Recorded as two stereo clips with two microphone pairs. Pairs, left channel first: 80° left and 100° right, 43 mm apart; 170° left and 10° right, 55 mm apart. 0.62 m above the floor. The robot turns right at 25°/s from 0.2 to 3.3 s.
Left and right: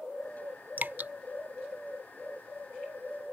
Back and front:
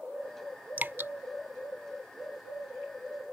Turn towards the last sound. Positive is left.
turn(degrees=0)